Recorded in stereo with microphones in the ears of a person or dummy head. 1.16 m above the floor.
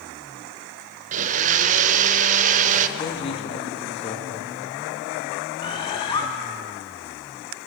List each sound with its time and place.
1.1 s a blender: 40° right (ahead or behind), 1.2 m
3.0 s a man speaking: 30° left (ahead or behind), 2 m
5.6 s a bird: 25° left (ahead or behind), 2 m